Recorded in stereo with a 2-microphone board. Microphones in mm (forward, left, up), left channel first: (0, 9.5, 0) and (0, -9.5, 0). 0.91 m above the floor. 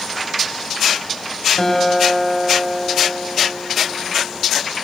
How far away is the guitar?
About 4.5 m.